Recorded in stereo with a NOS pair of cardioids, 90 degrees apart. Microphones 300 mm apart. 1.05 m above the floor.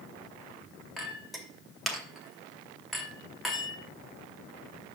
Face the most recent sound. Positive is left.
turn(degrees=0)